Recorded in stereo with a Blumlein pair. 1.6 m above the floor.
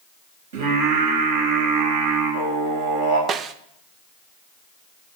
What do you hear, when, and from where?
0.5 s singing: 60° right, 4 m
3.3 s a snare drum: 30° right, 0.7 m